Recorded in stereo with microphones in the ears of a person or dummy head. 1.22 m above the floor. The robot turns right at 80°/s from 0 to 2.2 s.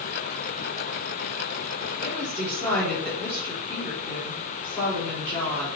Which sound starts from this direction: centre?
A woman speaking, at 2.0 s.